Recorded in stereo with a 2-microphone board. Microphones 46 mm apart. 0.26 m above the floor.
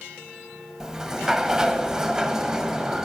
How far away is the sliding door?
About 0.6 m.